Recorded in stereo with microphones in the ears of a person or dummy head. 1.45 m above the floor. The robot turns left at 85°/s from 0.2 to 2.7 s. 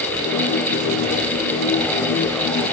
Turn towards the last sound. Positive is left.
No sound to turn to.